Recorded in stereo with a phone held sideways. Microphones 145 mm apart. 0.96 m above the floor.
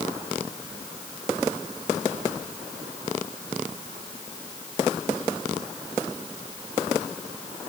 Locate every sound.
Only background noise.